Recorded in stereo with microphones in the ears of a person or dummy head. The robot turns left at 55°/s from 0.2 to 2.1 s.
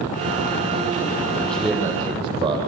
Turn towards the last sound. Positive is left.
turn(degrees=-20)